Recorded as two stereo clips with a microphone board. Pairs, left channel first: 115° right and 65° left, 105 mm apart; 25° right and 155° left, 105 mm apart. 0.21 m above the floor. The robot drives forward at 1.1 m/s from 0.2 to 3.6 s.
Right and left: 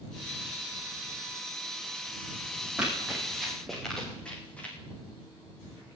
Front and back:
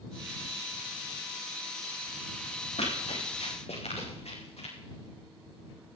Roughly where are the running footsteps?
Ahead.